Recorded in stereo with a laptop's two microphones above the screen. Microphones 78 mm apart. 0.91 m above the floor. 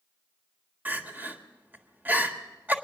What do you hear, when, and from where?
0.8 s crying: 20° right (ahead or behind), 1.5 m